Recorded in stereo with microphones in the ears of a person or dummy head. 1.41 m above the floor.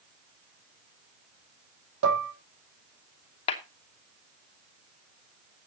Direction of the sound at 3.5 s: 25° left (ahead or behind).